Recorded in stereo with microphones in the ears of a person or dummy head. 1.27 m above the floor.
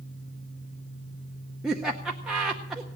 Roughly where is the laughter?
Centre.